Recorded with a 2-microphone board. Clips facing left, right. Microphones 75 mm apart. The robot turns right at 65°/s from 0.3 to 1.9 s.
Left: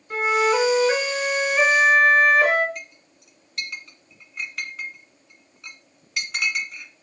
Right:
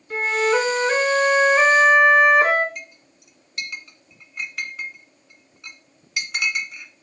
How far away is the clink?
About 1.3 m.